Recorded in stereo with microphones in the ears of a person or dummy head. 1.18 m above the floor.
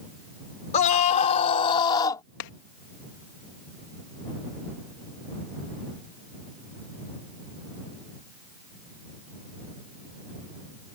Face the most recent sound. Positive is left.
turn(degrees=70)  # may be behind; listen again after turning